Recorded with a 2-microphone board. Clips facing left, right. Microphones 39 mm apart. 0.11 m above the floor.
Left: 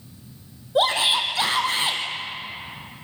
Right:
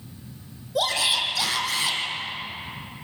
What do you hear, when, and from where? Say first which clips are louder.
0.8 s a shout: left 4 dB; 35° left (ahead or behind), 3.5 m